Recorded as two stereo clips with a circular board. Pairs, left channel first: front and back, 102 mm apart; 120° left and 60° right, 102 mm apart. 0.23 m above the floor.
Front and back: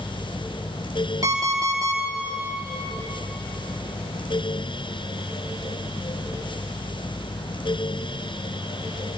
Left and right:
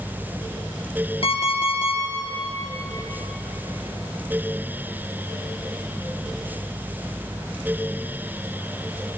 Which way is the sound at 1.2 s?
130° left.